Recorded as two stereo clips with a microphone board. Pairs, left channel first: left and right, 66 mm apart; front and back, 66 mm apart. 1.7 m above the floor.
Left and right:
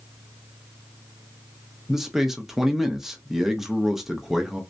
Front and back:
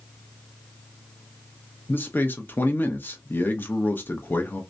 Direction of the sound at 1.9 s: 10° right.